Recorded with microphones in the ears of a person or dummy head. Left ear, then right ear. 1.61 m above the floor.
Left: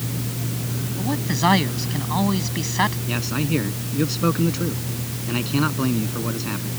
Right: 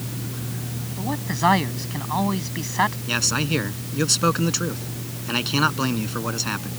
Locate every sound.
1.0 s a man speaking: 10° right (ahead or behind)
3.1 s a man speaking: 50° right (ahead or behind)